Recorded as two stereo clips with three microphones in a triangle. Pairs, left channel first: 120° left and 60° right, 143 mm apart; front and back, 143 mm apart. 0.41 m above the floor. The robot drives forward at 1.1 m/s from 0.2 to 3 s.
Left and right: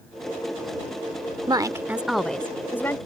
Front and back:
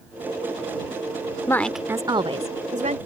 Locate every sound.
1.5 s a woman speaking: 45° right; by 3.0 s 170° right